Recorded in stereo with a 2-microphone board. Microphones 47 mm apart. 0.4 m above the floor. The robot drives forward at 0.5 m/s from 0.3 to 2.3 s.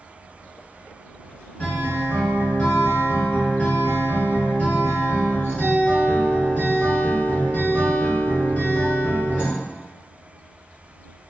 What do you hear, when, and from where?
1.6 s a guitar: 35° left (ahead or behind), 1.3 m